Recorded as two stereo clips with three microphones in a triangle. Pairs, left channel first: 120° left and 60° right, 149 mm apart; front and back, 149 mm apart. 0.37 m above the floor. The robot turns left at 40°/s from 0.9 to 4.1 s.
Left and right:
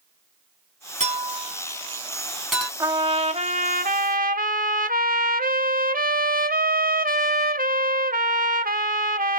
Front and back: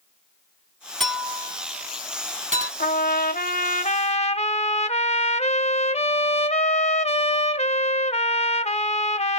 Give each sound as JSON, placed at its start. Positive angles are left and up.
{"t": 1.0, "sound": "a clink", "azimuth_deg": -85, "distance_m": 2.0}
{"t": 2.8, "sound": "a trumpet", "azimuth_deg": 10, "distance_m": 0.5}